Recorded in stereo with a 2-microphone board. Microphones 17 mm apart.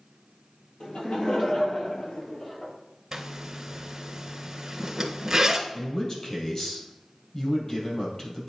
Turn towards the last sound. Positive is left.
turn(degrees=40)  # may be behind; listen again after turning